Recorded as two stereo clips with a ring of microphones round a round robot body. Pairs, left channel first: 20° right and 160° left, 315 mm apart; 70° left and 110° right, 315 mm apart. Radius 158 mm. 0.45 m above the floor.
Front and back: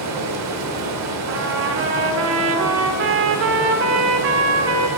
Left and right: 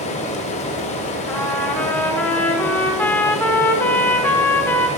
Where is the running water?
135° left, 1.0 m.